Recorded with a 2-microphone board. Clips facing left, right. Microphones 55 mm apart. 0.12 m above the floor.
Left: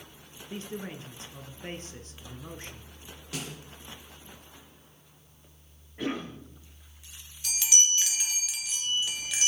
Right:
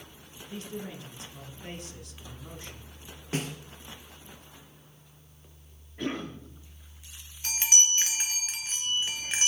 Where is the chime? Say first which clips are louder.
Right 1 dB; 35° right (ahead or behind), 1.3 m.